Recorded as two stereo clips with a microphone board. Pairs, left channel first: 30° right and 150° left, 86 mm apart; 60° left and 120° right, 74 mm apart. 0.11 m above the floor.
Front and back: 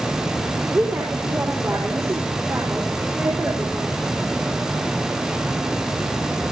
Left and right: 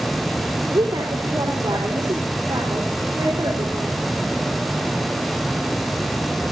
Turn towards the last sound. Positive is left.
turn(degrees=-150)